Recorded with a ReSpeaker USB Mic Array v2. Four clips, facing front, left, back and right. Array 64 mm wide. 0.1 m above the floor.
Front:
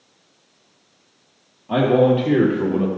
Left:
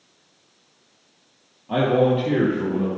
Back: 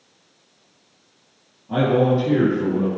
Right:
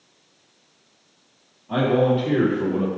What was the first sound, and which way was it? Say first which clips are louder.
A man speaking: left 1 dB, front 3 dB; 20° left.